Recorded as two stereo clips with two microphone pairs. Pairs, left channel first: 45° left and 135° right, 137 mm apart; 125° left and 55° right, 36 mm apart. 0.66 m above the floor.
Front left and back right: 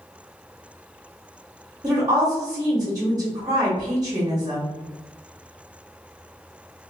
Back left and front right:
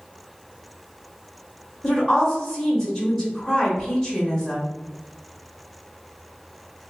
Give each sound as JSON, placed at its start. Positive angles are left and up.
{"t": 1.8, "sound": "a woman speaking", "azimuth_deg": 175, "distance_m": 0.8}